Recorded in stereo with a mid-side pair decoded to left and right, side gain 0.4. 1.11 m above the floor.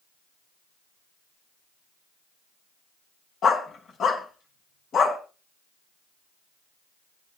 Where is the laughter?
I don't hear laughter.